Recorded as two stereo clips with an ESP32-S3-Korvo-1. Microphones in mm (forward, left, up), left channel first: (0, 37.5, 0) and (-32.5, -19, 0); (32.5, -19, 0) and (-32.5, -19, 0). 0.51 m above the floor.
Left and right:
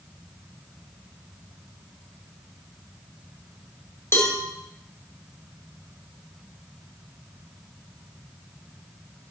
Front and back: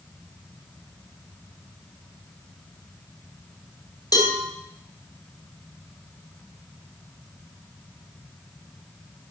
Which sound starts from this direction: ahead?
A cowbell, at 4.1 s.